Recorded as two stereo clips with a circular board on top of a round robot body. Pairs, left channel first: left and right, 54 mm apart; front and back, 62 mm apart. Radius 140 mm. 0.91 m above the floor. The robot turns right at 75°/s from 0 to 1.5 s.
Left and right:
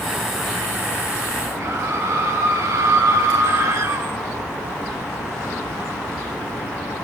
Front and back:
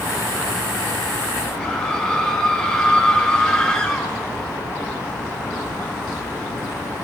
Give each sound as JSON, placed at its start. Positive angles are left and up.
{"t": 1.6, "sound": "a scream", "azimuth_deg": -80, "distance_m": 6.0}